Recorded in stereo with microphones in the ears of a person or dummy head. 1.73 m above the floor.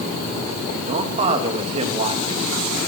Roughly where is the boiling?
No boiling in this recording.